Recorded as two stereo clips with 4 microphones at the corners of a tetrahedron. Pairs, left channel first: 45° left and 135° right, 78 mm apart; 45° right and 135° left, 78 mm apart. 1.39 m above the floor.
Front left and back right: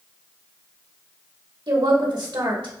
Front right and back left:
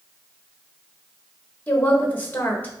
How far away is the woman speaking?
About 1.7 m.